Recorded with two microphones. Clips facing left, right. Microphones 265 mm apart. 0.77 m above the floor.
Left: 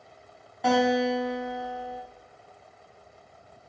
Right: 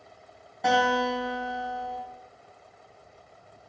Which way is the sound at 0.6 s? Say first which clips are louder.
Left 3 dB; centre (ahead or behind).